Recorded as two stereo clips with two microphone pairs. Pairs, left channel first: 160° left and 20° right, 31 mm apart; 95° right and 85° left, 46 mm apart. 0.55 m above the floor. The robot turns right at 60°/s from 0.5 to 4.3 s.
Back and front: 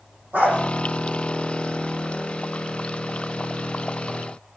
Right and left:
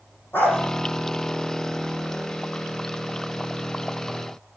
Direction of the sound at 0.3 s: 50° right.